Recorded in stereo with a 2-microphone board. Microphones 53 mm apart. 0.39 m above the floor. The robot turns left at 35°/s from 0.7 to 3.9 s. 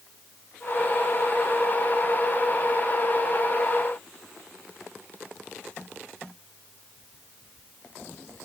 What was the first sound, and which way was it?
Only background noise.